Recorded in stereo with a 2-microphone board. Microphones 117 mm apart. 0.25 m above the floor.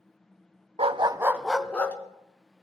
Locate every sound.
0.8 s a dog barking: 60° right (ahead or behind), 0.7 m; by 2.0 s 15° left (ahead or behind), 1.3 m